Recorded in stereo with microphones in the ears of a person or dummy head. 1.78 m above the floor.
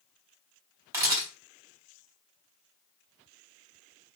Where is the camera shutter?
15° right (ahead or behind), 0.8 m.